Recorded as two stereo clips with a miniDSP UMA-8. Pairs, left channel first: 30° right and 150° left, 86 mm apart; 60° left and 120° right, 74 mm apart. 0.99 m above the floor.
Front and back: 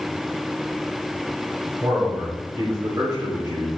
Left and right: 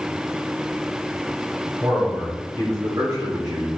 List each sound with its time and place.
1.8 s a man speaking: 165° right, 4 m; by 3.7 s 150° right, 3 m